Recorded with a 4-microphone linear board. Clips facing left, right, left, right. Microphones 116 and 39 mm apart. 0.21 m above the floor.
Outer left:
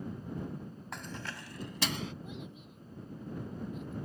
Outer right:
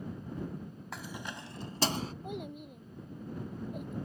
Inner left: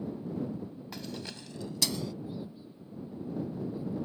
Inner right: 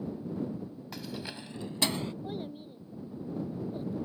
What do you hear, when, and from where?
0.9 s keys jangling: centre (ahead or behind); by 2.1 s 40° right (ahead or behind)
2.2 s a child speaking: 55° right (ahead or behind)